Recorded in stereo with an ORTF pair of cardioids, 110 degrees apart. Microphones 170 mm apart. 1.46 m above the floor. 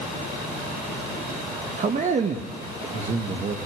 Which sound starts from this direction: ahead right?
A man speaking, at 1.8 s.